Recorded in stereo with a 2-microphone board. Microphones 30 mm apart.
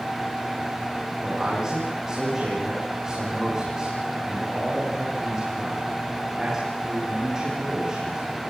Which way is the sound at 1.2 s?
20° right (ahead or behind).